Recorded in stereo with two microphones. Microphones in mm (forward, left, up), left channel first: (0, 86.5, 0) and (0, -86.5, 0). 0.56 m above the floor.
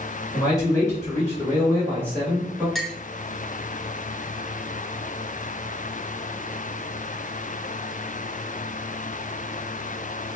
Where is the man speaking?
25° left (ahead or behind), 1.9 m; by 2.6 s 10° left (ahead or behind), 3 m.